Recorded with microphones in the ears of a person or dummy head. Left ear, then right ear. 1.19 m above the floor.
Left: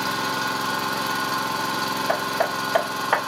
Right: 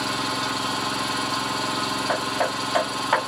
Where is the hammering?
10° left (ahead or behind), 2.5 m.